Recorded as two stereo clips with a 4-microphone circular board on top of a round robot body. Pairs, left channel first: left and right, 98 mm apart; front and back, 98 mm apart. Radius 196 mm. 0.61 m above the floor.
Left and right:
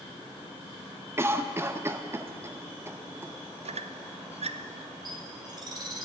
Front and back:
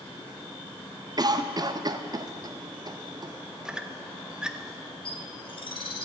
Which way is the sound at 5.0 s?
40° right.